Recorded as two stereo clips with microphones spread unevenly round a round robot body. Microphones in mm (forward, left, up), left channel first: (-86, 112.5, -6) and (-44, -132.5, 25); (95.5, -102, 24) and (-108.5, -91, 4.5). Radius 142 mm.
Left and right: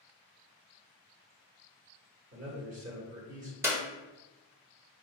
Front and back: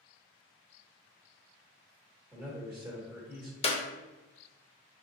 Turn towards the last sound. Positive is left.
turn(degrees=0)